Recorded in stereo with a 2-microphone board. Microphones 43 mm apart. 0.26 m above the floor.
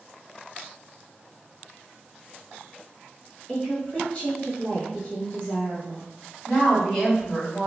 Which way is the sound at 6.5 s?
15° left (ahead or behind).